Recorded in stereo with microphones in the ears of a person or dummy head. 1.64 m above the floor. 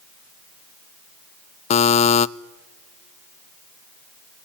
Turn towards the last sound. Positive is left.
turn(degrees=35)  # may be behind; listen again after turning